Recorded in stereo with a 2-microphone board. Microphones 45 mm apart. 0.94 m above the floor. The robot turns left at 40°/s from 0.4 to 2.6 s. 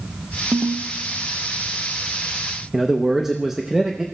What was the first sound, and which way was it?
A ringtone, 65° right (ahead or behind).